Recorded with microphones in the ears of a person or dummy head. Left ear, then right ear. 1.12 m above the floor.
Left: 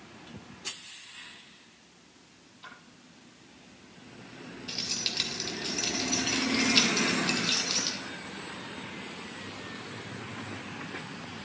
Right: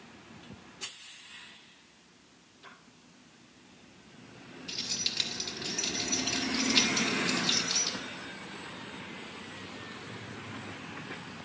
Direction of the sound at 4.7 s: Centre (ahead or behind).